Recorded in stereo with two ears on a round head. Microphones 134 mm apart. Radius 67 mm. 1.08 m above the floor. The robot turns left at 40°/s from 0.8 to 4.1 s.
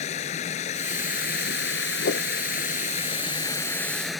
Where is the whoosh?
85° left; by 2.3 s 80° left.